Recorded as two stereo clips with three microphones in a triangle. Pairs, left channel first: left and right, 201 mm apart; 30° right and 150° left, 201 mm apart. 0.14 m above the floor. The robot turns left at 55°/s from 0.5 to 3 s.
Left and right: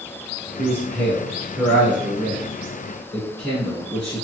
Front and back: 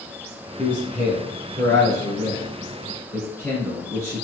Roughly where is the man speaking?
Ahead left.